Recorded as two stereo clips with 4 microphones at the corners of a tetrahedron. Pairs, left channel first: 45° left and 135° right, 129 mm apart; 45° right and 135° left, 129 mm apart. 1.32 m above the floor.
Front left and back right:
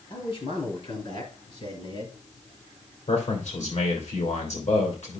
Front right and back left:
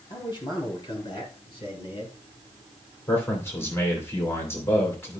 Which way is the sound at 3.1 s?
25° left.